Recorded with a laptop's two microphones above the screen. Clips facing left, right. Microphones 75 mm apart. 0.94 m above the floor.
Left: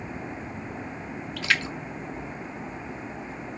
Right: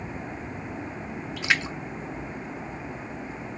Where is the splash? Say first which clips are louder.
Even; 20° right (ahead or behind), 0.8 m.